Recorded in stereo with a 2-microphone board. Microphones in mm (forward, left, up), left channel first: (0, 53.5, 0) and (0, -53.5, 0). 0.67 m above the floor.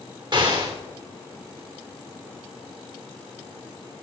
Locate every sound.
0.3 s an explosion: 45° right (ahead or behind), 2.5 m